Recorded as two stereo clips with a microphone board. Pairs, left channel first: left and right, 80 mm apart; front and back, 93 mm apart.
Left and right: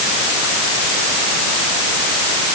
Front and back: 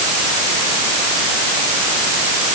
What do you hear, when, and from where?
Only background noise.